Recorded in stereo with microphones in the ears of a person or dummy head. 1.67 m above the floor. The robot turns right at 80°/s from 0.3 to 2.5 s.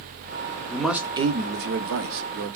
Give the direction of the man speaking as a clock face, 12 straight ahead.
6 o'clock.